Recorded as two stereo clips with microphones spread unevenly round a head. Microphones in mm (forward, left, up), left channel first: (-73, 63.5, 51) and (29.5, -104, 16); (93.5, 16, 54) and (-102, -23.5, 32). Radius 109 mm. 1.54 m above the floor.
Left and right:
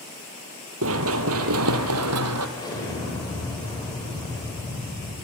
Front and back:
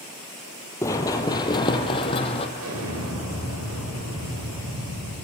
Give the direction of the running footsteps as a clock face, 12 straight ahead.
2 o'clock.